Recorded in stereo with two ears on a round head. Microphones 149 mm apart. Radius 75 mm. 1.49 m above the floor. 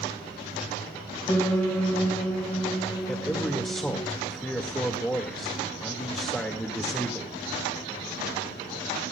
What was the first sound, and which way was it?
A piano, 15° left (ahead or behind).